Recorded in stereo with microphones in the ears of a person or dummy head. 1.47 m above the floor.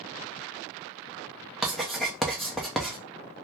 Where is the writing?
Centre (ahead or behind), 0.5 m.